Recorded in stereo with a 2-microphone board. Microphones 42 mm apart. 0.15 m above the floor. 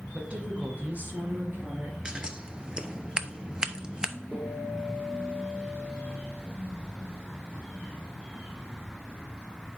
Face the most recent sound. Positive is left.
turn(degrees=5)  # may be behind; listen again after turning